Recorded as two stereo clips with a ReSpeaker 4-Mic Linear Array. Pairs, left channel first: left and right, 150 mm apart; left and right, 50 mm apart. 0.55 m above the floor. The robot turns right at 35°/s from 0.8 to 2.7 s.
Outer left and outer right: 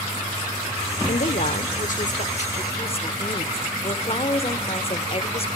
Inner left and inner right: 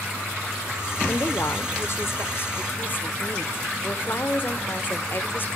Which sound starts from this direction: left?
A woman speaking, at 1.1 s.